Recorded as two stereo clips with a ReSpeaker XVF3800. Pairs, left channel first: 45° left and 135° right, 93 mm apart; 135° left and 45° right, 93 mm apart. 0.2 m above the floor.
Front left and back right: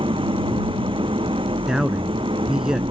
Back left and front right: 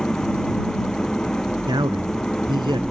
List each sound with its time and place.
0.0 s an engine running: 140° right
1.7 s a man speaking: 55° right